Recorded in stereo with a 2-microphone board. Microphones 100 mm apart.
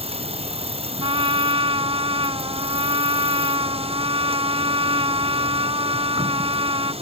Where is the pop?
No pop in this recording.